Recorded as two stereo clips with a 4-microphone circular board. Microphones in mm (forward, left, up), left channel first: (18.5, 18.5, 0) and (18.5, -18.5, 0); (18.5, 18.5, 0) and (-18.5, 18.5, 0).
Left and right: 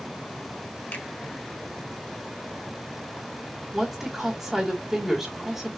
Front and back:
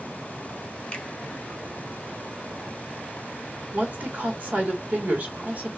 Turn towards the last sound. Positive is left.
turn(degrees=-170)